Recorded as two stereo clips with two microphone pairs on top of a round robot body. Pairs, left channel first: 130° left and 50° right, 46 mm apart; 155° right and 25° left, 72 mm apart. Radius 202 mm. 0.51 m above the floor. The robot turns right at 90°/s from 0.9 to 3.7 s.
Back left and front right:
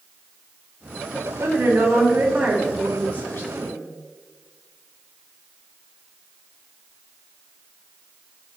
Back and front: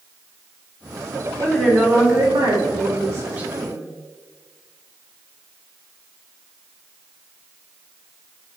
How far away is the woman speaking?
About 2 m.